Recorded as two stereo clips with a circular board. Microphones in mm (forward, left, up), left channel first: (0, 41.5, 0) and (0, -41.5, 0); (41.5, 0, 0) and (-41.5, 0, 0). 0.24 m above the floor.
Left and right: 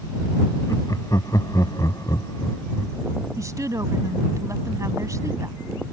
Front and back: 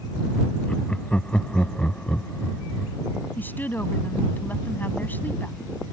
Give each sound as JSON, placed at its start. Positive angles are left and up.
{"t": 0.7, "sound": "laughter", "azimuth_deg": 75}
{"t": 3.4, "sound": "a woman speaking", "azimuth_deg": -60}